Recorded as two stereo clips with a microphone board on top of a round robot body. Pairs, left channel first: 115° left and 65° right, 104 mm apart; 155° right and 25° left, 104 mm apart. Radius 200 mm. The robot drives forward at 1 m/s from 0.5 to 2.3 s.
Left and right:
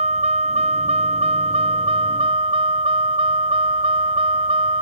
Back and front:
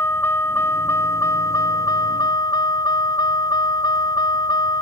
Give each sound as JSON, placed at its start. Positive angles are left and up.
{"t": 0.0, "sound": "a vehicle", "azimuth_deg": -85}